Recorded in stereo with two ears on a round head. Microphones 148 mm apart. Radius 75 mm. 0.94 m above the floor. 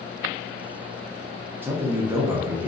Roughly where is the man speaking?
Centre.